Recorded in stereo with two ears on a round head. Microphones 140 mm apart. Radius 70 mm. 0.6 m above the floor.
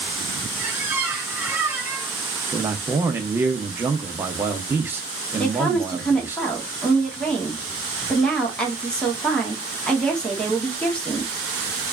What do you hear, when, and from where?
0.6 s a squeak: 10° right (ahead or behind), 1.4 m
2.5 s a man speaking: 15° right (ahead or behind), 0.8 m
5.4 s a woman speaking: 5° left (ahead or behind), 1.3 m